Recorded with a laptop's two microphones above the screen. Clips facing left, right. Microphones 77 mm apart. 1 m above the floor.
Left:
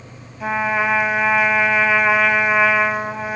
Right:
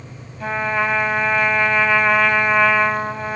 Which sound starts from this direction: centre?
A trumpet, at 0.4 s.